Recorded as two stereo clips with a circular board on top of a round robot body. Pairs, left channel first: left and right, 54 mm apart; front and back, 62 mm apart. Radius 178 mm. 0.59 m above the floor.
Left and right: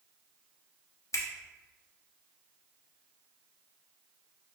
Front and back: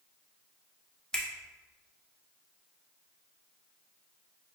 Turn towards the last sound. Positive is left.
turn(degrees=80)